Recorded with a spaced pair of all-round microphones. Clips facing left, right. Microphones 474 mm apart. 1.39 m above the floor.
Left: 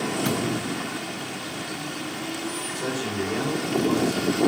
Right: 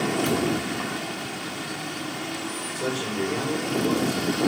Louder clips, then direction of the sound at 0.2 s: Right 2 dB; 80° left.